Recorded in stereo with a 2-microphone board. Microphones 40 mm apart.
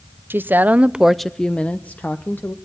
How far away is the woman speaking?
About 0.8 m.